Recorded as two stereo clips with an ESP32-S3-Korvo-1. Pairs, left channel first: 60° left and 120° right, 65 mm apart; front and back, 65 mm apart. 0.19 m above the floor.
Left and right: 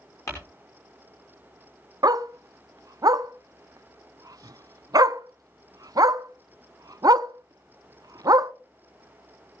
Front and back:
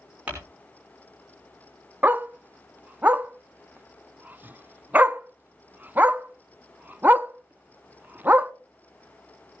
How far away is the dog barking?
About 0.5 m.